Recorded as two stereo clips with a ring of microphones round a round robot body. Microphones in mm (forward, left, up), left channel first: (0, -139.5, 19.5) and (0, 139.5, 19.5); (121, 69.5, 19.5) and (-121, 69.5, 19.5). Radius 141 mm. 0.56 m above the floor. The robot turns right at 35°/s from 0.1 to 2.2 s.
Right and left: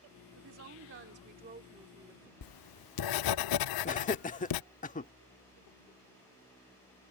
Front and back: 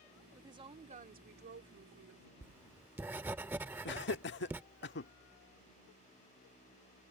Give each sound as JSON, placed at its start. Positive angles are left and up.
{"t": 0.3, "sound": "a woman speaking", "azimuth_deg": 105}
{"t": 2.4, "sound": "writing", "azimuth_deg": -95}
{"t": 3.9, "sound": "laughter", "azimuth_deg": -35}